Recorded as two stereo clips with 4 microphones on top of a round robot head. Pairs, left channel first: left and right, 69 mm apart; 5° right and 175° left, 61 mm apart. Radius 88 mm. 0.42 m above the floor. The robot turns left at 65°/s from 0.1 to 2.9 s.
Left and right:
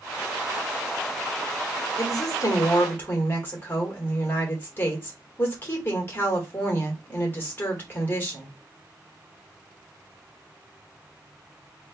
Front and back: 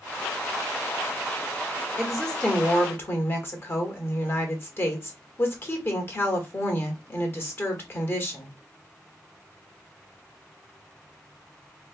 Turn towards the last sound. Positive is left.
turn(degrees=35)